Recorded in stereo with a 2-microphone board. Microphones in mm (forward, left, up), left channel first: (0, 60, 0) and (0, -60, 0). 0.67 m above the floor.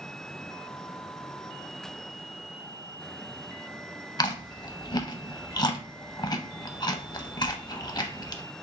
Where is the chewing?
35° left (ahead or behind), 0.5 m.